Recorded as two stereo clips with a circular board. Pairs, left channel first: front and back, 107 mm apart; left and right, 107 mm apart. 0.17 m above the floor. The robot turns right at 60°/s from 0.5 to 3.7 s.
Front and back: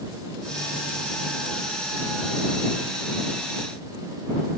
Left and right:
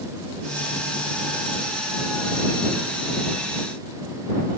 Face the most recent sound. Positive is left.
No sound to turn to.